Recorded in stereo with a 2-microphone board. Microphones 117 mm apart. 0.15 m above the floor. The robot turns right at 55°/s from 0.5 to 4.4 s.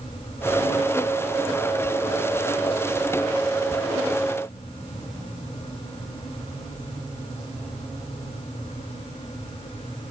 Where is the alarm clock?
No alarm clock in this recording.